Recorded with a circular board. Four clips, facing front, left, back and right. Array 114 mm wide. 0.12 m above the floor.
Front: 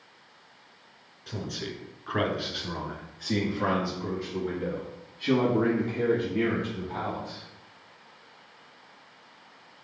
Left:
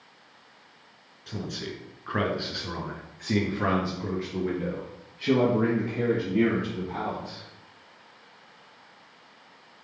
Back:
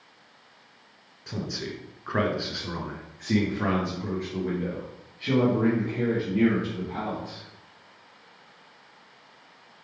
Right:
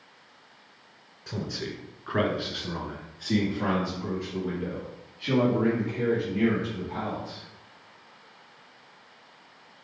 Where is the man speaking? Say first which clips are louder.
Right 1 dB, back 2 dB; 140° right, 1.3 m; by 7.4 s 100° left, 3.5 m.